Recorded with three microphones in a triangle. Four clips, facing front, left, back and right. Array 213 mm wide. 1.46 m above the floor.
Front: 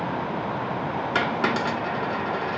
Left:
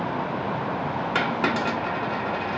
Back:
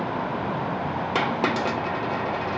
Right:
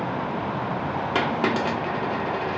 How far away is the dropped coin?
About 0.9 m.